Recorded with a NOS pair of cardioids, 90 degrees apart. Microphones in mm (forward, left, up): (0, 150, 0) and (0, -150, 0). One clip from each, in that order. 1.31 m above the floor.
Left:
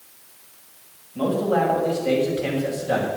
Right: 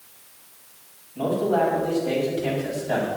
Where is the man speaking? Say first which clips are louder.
Left 1 dB; 55° left, 6.5 m.